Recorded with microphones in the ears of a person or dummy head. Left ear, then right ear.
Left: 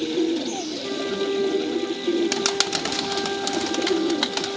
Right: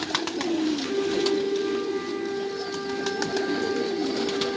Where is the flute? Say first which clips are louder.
Right 1 dB; 5° left (ahead or behind), 1.8 m.